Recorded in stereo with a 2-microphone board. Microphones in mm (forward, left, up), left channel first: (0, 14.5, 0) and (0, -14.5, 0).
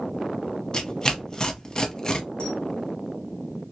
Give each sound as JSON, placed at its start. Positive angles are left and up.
{"t": 0.7, "sound": "tearing paper", "side_deg": 25, "distance_m": 0.7}
{"t": 2.4, "sound": "a camera shutter", "side_deg": 45, "distance_m": 1.3}